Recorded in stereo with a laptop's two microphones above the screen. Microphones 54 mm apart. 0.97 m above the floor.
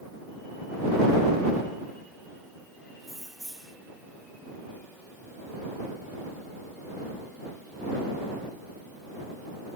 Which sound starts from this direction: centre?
Keys jangling, at 3.0 s.